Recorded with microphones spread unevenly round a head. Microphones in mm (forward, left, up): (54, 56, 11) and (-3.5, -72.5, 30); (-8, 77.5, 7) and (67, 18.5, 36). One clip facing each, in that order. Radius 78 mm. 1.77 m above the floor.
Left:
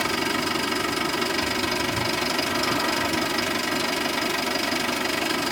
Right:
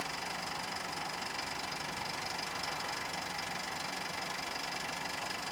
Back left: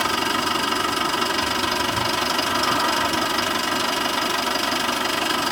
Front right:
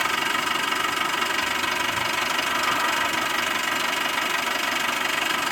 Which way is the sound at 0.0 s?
70° left.